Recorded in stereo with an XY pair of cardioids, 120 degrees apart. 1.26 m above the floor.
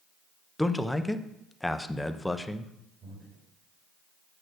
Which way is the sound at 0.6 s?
10° left.